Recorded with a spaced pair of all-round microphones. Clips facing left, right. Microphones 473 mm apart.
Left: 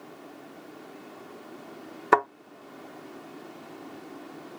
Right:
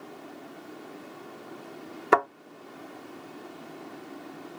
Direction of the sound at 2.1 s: 5° left (ahead or behind).